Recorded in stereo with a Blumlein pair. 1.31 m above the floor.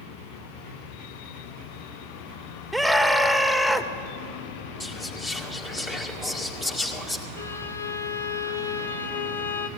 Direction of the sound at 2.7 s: Straight ahead.